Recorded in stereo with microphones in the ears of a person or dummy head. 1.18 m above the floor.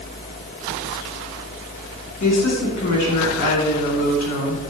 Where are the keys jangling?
No keys jangling in this recording.